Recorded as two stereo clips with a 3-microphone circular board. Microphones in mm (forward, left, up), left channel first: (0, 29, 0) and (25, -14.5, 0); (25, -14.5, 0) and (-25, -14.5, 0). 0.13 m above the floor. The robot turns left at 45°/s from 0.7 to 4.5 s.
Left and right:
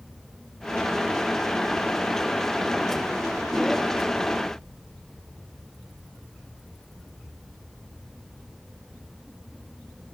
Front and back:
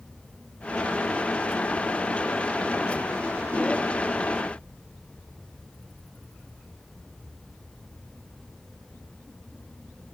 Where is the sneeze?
I don't hear a sneeze.